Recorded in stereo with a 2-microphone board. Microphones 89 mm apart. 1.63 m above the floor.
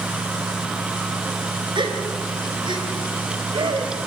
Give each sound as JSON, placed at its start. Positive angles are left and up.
{"t": 1.8, "sound": "a gasp", "side_deg": -65, "distance_m": 3.0}